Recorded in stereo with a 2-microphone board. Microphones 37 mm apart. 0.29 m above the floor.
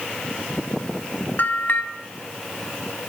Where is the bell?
55° left (ahead or behind), 0.7 m.